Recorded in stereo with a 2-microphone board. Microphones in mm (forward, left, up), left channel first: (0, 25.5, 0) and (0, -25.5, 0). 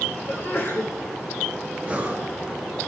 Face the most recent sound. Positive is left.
turn(degrees=-25)  # may be behind; listen again after turning